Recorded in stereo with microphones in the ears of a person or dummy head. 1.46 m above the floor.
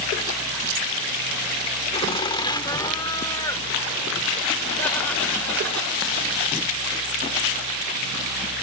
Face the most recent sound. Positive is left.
turn(degrees=10)  # may be behind; listen again after turning